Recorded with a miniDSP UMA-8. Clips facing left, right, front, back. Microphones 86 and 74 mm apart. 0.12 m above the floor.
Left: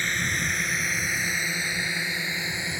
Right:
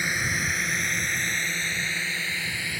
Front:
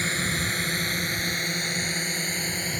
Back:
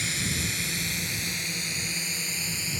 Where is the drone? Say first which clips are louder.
Even, front 4 dB; 15° right; by 2.8 s 25° left.